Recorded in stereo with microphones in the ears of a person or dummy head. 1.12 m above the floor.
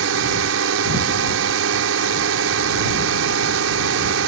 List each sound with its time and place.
0.0 s a drone: 70° right (ahead or behind)